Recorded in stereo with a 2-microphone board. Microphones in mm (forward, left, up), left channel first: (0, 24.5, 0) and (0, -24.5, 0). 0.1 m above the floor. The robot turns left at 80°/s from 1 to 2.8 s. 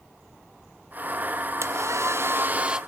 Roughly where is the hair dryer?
Right.